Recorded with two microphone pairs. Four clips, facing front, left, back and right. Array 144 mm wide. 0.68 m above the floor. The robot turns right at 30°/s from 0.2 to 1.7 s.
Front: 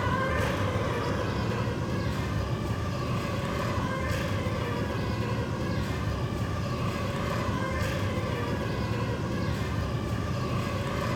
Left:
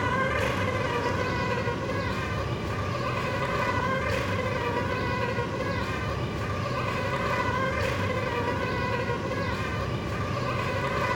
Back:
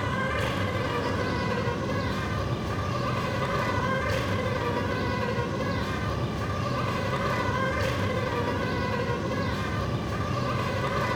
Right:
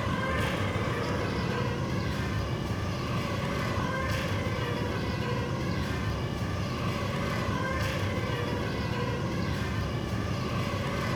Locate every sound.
0.0 s an insect: 100° left, 2.5 m; by 11.2 s 145° left, 2.5 m